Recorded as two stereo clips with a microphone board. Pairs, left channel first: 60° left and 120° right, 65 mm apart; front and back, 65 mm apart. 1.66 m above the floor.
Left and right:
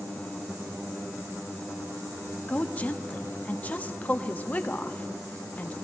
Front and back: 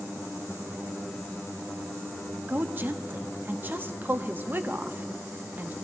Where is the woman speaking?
125° left, 0.6 m.